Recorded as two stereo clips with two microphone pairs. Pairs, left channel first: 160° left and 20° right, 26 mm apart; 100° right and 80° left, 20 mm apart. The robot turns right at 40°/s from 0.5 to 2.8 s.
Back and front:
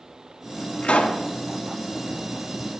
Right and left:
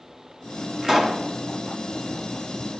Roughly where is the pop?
Behind left.